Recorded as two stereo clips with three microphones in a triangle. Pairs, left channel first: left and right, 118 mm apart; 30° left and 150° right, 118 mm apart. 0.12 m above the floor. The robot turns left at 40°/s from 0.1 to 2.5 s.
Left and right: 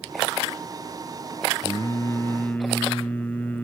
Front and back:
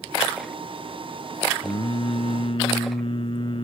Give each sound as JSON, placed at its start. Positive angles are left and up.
{"t": 1.6, "sound": "singing", "azimuth_deg": 55, "distance_m": 0.6}